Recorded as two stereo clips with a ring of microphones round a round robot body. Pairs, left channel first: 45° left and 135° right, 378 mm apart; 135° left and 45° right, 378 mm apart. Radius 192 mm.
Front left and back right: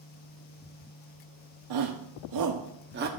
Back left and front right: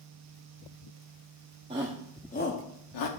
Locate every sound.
1.7 s a shout: 120° right, 1.1 m; by 3.1 s 160° left, 1.3 m